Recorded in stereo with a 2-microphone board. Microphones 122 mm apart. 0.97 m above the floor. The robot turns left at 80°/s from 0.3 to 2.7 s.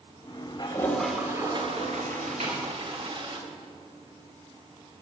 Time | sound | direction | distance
0.6 | a toilet flushing | 40° left | 1.8 m
2.4 | a snare drum | 75° right (ahead or behind) | 4 m